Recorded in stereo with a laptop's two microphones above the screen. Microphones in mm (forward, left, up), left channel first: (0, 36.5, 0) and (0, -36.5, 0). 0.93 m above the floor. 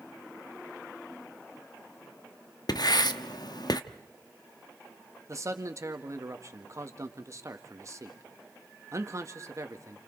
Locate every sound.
2.7 s writing: 65° left (ahead or behind), 0.7 m
5.3 s a man speaking: 45° right (ahead or behind), 1.6 m